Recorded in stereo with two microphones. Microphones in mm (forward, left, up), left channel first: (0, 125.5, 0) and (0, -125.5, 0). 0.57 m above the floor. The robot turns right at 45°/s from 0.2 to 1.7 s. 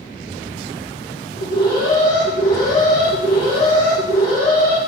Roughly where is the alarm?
Left.